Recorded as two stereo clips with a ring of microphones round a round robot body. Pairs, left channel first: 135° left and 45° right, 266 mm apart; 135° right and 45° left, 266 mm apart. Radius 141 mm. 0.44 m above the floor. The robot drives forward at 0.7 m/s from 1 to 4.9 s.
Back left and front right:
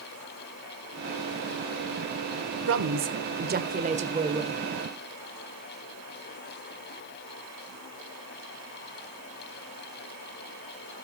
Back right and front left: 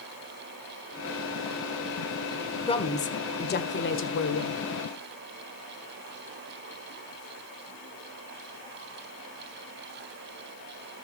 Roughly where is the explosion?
No explosion in this recording.